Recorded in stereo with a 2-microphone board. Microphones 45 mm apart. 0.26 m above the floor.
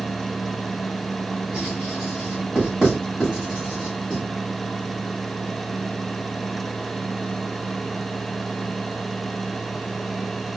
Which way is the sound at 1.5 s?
15° right (ahead or behind).